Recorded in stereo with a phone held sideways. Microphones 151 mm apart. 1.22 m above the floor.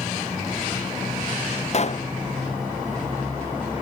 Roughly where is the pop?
Left.